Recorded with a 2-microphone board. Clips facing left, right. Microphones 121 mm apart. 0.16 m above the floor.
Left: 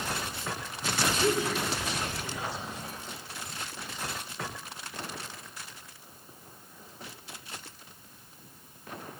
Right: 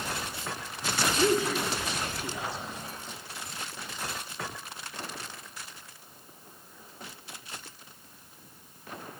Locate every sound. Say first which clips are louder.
1.2 s a man speaking: right 4 dB; 75° right (ahead or behind), 4 m